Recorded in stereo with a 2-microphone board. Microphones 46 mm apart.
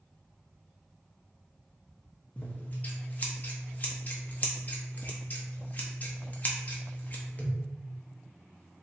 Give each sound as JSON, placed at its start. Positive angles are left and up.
{"t": 2.4, "sound": "scissors", "side_deg": 35, "distance_m": 0.7}